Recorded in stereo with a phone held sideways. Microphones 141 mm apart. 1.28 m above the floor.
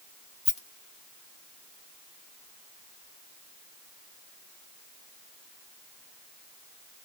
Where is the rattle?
50° left (ahead or behind), 1.5 m.